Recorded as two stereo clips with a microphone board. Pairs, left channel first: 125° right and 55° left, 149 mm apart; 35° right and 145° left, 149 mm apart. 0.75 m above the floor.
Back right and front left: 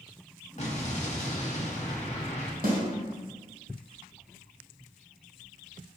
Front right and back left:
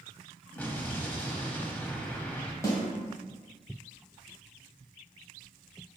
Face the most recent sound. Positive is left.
turn(degrees=35)